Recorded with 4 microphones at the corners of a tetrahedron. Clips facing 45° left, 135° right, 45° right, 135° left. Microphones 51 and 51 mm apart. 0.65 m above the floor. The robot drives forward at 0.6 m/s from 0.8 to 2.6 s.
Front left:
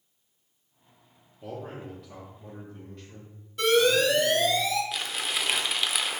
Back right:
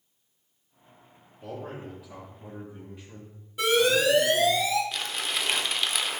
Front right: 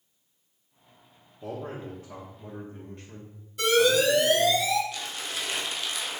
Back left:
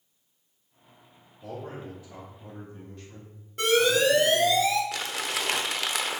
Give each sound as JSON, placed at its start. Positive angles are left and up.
{"t": 1.4, "sound": "a man speaking", "azimuth_deg": -35, "distance_m": 1.5}
{"t": 3.6, "sound": "an alarm", "azimuth_deg": 145, "distance_m": 2.0}
{"t": 4.9, "sound": "crumpling", "azimuth_deg": 130, "distance_m": 0.7}